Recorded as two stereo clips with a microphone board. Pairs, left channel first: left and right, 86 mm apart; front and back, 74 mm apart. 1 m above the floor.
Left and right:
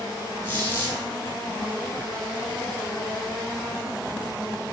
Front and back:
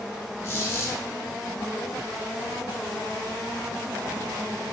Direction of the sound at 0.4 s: 35° left.